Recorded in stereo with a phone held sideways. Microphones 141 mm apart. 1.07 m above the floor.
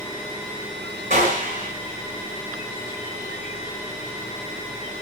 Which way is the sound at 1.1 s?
65° right (ahead or behind).